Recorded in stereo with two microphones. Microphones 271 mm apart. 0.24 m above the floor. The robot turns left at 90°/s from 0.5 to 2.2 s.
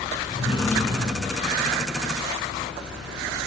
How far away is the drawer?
About 1.5 m.